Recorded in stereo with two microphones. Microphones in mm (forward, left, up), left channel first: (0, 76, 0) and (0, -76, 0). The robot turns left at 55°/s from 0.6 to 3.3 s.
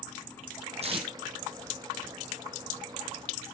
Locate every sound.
0.8 s tape being pulled: 45° right (ahead or behind), 1.7 m; by 1.1 s 30° right (ahead or behind), 1.7 m